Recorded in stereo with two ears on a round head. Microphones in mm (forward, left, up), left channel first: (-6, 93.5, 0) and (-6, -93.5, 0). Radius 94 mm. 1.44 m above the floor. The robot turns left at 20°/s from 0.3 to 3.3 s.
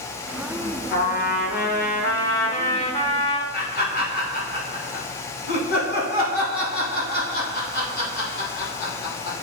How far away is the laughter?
About 3.5 m.